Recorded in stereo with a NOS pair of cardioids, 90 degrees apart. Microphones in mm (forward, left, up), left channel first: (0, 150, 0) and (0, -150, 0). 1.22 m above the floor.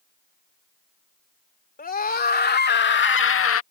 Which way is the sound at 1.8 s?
30° left.